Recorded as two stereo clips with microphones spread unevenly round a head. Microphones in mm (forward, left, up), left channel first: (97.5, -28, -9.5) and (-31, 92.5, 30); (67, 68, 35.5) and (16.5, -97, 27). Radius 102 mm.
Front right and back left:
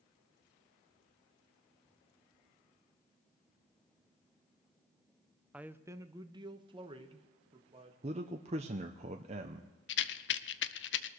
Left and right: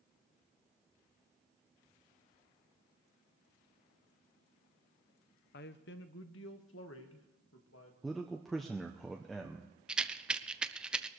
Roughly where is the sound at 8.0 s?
Behind.